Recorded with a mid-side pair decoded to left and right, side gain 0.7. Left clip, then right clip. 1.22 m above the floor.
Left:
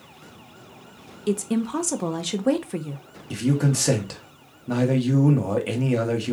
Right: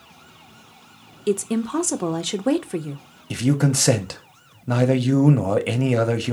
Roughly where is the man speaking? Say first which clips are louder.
Right 3 dB; ahead right.